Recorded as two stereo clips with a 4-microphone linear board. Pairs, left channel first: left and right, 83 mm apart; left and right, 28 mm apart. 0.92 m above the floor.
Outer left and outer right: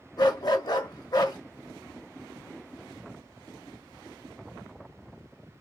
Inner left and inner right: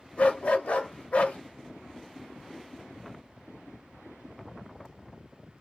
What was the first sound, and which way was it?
A dog barking, 55° left (ahead or behind).